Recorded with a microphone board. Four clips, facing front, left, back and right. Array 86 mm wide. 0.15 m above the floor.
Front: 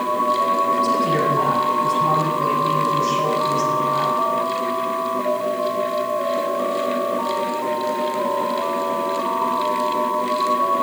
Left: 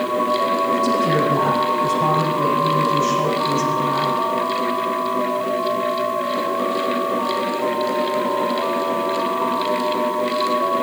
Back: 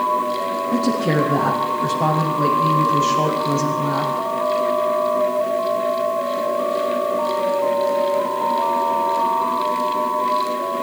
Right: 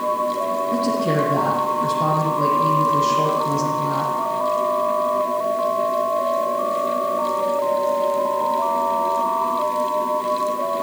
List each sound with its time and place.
0.7 s a woman speaking: 165° right, 7.5 m